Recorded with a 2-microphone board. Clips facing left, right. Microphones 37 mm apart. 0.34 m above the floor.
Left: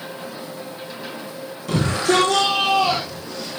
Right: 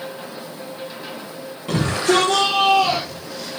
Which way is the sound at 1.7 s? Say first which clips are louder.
Right 1 dB; 25° right (ahead or behind).